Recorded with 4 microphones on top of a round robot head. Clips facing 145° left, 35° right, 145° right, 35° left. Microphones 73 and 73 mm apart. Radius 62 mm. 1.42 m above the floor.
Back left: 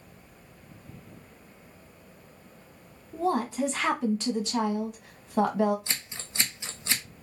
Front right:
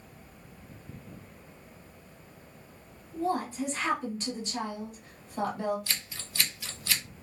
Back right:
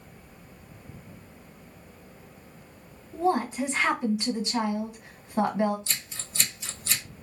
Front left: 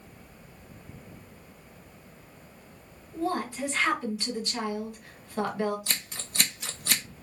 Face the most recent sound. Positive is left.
turn(degrees=75)